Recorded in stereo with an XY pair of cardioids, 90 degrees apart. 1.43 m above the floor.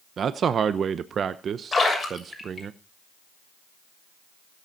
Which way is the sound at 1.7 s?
25° left.